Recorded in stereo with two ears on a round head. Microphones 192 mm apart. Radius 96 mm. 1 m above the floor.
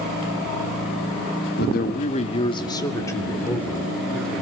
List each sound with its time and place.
1.6 s a man speaking: 50° left (ahead or behind), 1.6 m; by 4.4 s 5° left (ahead or behind), 5 m